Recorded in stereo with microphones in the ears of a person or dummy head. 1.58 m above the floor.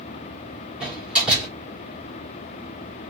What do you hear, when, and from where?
0.8 s a door slam: 5° right (ahead or behind), 4 m